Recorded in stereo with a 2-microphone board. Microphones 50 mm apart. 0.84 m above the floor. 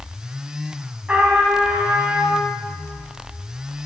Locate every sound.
1.1 s a trumpet: 20° right (ahead or behind), 4 m